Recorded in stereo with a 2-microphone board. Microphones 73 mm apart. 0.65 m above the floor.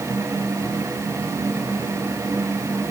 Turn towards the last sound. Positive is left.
No sound to turn to.